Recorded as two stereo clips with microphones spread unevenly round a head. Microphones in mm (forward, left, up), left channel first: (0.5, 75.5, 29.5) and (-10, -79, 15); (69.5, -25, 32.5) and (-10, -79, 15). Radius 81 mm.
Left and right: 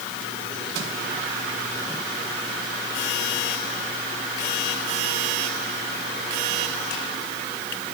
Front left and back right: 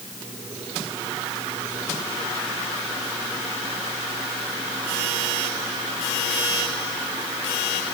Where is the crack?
No crack in this recording.